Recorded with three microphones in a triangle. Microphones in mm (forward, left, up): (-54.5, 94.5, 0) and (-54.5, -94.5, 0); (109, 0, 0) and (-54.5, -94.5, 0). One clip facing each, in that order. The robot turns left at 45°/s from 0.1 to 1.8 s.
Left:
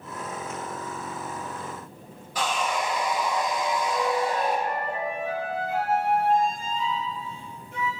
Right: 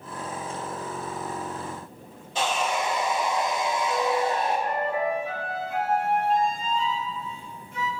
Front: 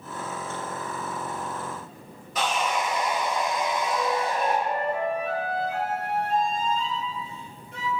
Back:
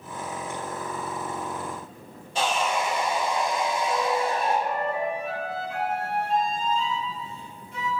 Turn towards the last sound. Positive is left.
turn(degrees=60)